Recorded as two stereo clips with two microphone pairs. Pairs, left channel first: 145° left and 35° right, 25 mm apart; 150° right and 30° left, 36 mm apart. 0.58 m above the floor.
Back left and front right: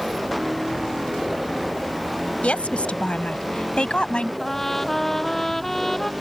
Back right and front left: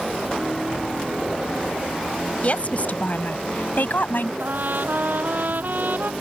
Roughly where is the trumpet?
Ahead left.